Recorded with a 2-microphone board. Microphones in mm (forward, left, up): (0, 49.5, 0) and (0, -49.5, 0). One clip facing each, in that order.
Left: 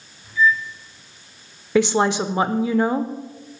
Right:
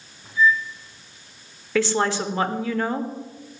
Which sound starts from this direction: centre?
A woman speaking, at 1.8 s.